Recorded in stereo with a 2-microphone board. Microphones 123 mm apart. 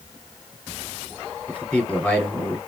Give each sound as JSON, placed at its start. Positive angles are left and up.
{"t": 1.5, "sound": "a man speaking", "side_deg": 10, "distance_m": 1.2}